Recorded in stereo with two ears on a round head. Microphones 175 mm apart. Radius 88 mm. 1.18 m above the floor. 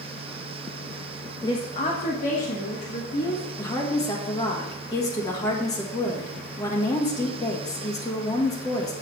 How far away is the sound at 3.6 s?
About 1.7 m.